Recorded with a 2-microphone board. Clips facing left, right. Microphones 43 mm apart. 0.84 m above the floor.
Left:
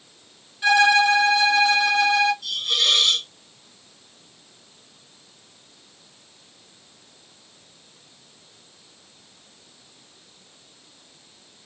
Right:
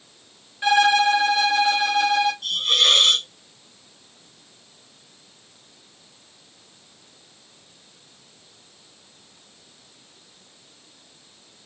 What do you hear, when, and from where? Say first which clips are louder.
0.6 s a violin: left 1 dB; 25° right (ahead or behind), 1.4 m
2.4 s a hiss: right 3 dB; 50° right (ahead or behind), 0.8 m